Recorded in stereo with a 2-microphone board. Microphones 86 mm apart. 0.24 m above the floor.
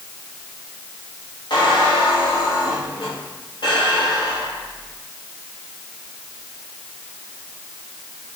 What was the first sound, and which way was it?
A squeak, 65° left (ahead or behind).